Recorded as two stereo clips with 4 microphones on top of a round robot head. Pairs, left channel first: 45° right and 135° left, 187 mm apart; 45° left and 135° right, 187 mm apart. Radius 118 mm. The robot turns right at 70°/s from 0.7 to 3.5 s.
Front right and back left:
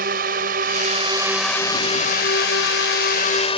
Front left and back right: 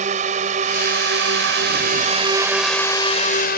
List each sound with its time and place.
0.0 s a drone: 175° left; by 3.6 s 15° left